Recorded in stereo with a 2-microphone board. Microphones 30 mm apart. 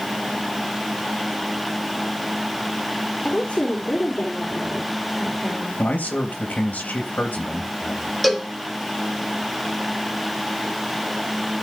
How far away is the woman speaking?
About 4 m.